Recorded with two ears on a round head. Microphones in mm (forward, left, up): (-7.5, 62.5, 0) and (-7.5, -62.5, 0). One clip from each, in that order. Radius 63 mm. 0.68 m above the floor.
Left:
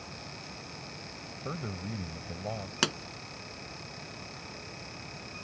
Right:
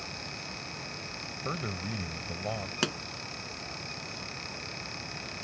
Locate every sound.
1.4 s a man speaking: 35° right (ahead or behind)
2.8 s a pop: 20° left (ahead or behind)